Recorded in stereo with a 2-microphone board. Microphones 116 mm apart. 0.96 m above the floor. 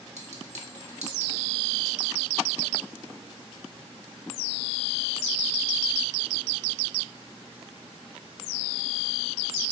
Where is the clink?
75° right (ahead or behind), 1.5 m.